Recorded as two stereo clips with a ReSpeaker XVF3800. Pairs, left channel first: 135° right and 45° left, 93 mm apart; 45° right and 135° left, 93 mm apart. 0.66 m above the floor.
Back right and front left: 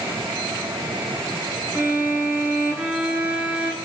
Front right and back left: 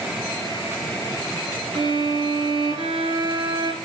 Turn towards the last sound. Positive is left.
turn(degrees=115)